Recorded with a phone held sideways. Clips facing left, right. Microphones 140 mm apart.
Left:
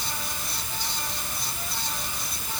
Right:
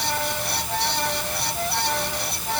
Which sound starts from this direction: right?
A fan, at 0.0 s.